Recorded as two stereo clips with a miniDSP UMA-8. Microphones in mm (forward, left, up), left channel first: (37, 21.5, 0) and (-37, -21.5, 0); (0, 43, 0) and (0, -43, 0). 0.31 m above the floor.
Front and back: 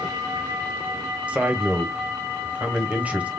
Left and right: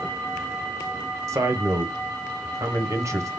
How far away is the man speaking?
About 1.4 m.